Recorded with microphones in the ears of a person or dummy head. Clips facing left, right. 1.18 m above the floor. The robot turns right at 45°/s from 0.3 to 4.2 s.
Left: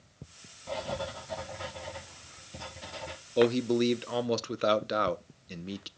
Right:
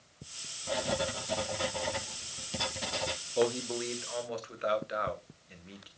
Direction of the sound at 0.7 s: 165° right.